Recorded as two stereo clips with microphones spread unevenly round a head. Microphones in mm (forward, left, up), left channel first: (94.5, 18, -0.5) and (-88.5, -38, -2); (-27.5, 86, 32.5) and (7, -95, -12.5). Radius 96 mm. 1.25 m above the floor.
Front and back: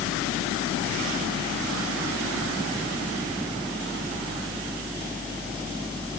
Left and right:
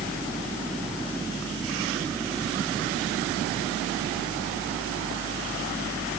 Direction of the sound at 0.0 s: 115° right.